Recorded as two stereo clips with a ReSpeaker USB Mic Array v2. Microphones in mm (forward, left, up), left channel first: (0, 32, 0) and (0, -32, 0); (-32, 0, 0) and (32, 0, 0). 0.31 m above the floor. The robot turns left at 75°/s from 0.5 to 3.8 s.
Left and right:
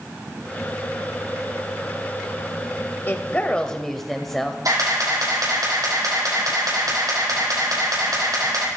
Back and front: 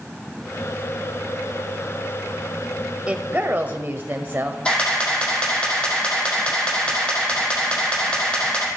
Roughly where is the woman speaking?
Ahead left.